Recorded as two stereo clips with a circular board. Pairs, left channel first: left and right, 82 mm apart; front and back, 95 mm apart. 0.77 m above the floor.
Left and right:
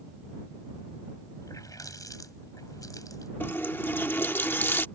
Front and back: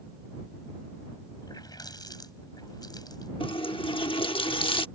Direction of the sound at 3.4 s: 25° left.